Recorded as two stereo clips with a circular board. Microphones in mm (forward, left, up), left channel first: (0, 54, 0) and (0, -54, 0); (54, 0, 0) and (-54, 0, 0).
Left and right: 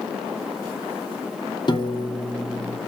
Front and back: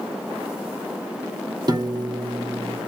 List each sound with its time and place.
1.7 s a piano: 135° left, 1.4 m